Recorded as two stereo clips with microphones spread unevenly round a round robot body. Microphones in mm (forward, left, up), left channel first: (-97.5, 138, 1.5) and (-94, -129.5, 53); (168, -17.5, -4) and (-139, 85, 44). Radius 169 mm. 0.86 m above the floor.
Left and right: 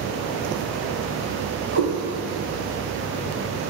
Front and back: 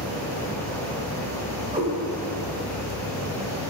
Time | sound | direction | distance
1.7 | a cat meowing | 130° right | 1.7 m